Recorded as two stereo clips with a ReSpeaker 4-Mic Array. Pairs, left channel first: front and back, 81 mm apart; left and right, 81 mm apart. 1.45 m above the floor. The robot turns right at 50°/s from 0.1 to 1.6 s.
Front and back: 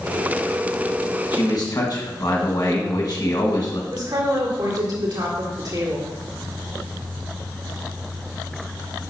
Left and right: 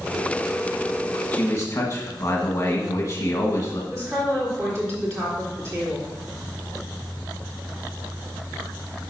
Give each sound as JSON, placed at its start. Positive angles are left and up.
{"t": 1.3, "sound": "a man speaking", "azimuth_deg": 25, "distance_m": 1.4}
{"t": 3.9, "sound": "a woman speaking", "azimuth_deg": -140, "distance_m": 3.0}